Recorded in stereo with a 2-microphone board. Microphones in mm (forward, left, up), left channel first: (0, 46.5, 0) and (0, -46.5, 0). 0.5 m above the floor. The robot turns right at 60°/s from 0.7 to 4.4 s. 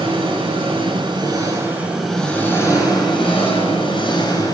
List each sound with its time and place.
0.0 s an engine running: 80° right, 6.5 m; by 4.5 s 140° left, 6.5 m